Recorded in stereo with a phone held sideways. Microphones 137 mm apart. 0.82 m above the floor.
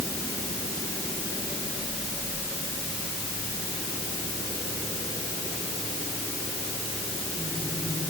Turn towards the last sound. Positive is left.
No sound to turn to.